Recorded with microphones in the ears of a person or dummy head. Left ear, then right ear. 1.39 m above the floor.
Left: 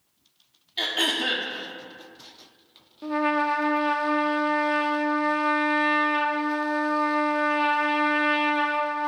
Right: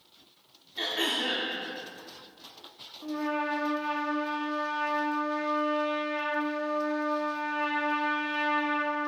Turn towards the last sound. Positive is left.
turn(degrees=60)  # may be behind; listen again after turning